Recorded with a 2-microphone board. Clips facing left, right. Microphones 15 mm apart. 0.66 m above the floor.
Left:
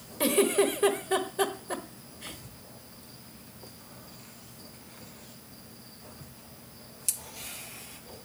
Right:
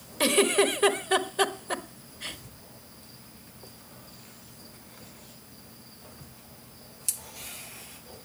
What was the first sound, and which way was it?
A giggle, 40° right (ahead or behind).